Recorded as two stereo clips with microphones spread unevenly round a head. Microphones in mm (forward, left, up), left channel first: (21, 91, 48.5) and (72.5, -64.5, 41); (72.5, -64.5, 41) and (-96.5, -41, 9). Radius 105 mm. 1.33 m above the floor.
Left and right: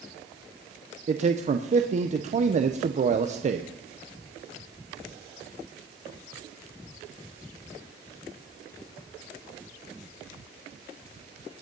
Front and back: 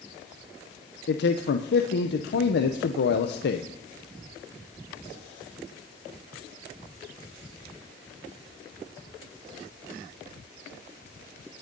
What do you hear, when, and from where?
1.1 s a man speaking: 25° right, 0.8 m